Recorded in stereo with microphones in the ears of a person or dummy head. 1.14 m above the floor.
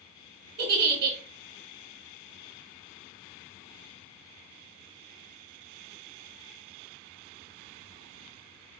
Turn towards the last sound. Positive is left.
turn(degrees=-60)  # may be behind; listen again after turning